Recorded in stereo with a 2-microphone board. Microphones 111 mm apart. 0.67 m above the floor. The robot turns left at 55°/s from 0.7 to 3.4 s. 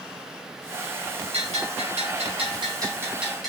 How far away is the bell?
About 7.5 m.